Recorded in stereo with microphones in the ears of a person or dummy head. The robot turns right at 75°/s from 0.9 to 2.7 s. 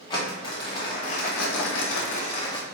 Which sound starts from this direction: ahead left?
Crumpling, at 0.1 s.